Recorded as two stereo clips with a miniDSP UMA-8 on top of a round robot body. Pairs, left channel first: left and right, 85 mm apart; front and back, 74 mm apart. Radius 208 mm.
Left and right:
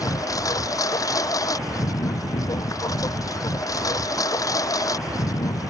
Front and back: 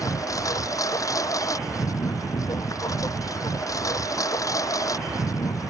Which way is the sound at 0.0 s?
45° left.